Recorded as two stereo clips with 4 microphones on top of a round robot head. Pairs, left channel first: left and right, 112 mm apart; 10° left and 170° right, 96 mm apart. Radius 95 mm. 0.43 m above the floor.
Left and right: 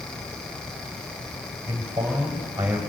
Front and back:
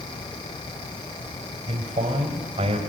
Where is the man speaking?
160° right, 2.5 m; by 2.8 s 170° right, 3 m.